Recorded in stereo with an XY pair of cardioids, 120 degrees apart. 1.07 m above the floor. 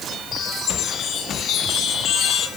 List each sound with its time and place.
0.3 s a chime: 60° left, 8 m